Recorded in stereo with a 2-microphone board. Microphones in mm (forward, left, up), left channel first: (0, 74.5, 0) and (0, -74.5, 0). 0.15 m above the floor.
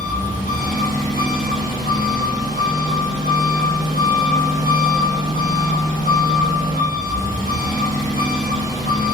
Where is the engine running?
70° left (ahead or behind), 1.8 m.